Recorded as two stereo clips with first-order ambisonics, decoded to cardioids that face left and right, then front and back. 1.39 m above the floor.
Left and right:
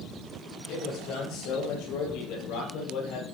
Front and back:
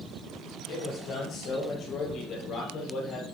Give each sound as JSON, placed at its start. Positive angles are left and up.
{"t": 0.7, "sound": "a man speaking", "azimuth_deg": 55, "distance_m": 6.0}